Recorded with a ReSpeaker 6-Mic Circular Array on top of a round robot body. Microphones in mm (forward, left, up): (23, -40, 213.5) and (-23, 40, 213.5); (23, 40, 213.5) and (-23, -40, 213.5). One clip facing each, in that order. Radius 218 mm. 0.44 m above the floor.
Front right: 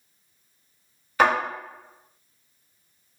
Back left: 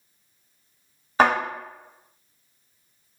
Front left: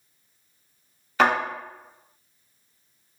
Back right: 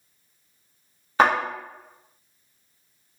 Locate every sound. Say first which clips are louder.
1.2 s a thud: back left 1 dB, back right 1 dB; 175° right, 1.0 m